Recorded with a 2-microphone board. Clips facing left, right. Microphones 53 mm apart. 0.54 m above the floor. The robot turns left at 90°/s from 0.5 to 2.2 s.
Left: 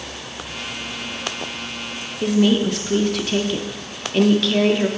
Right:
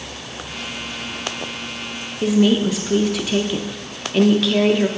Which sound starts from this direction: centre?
A woman speaking, at 2.2 s.